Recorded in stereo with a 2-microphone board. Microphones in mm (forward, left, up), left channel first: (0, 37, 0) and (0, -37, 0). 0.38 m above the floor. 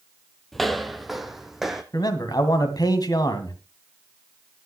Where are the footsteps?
5° left (ahead or behind), 0.8 m; by 1.8 s 5° right (ahead or behind), 1.5 m.